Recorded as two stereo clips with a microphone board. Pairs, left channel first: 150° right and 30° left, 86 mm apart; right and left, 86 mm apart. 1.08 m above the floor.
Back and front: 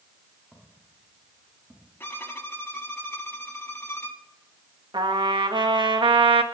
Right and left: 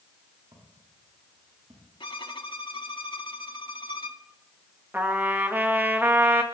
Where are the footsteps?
115° left, 8.5 m.